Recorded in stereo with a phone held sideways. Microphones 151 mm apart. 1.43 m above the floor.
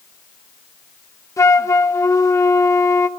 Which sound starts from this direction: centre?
A flute, at 1.4 s.